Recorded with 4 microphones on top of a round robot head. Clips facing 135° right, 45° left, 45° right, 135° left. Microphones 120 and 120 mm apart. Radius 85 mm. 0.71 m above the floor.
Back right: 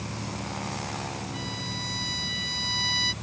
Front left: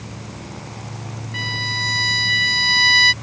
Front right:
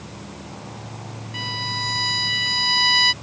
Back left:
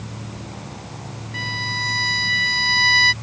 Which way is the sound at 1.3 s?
25° left.